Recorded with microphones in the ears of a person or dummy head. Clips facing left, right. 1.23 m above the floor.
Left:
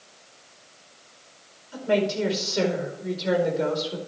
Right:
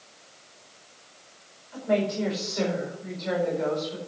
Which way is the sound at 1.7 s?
40° left (ahead or behind).